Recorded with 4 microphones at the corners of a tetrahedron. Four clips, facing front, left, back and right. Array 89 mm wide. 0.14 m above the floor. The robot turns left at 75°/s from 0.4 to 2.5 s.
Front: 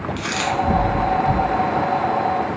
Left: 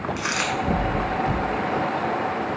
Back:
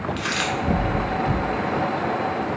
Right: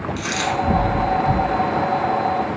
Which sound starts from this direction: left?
A dropped coin, at 0.2 s.